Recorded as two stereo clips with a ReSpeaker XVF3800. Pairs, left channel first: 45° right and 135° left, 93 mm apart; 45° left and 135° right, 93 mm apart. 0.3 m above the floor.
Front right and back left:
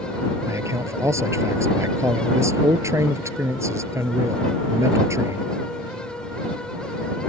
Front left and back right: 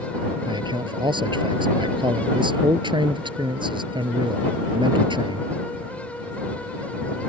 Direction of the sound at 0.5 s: 165° right.